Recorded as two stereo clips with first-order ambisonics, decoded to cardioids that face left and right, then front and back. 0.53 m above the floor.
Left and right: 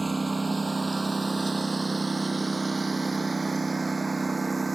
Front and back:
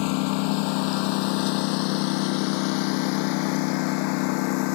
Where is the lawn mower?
10° right.